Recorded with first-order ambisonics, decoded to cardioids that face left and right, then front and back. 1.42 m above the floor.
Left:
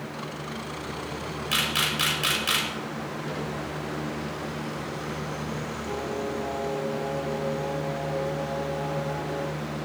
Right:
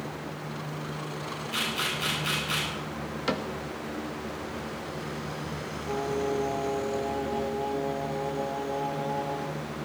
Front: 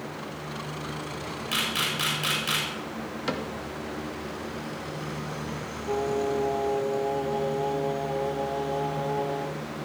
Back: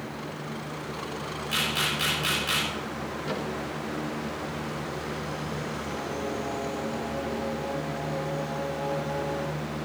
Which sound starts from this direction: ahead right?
A cupboard door, at 3.3 s.